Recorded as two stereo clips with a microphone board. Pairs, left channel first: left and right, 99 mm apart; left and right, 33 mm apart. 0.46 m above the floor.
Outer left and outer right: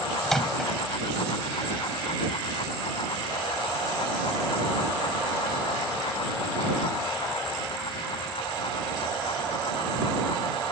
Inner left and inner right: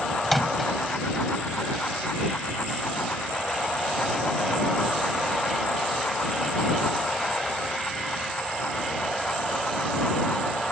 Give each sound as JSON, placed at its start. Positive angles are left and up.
{"t": 0.2, "sound": "a microwave", "side_deg": 5}